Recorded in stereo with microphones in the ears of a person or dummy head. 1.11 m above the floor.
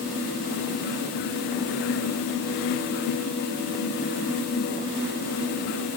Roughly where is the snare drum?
No snare drum in this recording.